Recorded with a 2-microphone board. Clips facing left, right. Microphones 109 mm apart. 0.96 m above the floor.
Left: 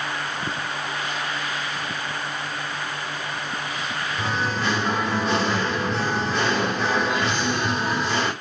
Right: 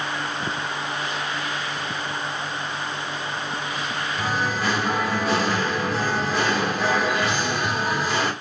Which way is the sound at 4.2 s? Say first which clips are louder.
Right 1 dB; 5° right (ahead or behind).